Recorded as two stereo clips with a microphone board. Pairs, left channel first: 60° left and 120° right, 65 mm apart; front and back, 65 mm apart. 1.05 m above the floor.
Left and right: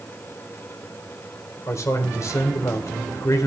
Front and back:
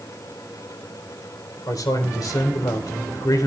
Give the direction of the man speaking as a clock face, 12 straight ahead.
11 o'clock.